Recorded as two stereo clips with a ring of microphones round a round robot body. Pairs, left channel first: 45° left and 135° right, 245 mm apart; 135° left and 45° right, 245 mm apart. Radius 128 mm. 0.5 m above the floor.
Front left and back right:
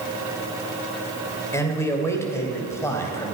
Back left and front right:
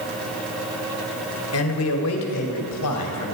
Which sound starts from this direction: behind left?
A man speaking, at 1.5 s.